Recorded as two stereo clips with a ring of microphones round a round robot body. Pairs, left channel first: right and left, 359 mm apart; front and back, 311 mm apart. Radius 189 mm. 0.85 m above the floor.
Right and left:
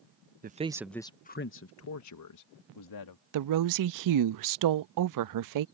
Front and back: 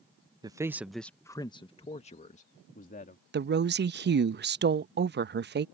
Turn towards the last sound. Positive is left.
turn(degrees=120)